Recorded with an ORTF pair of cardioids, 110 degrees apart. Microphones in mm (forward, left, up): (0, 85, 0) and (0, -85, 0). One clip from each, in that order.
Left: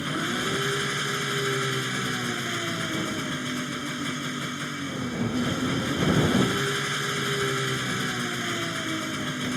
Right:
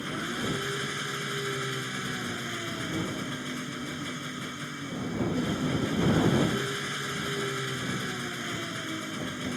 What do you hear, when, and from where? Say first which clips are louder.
0.0 s an engine running: left 5 dB; 35° left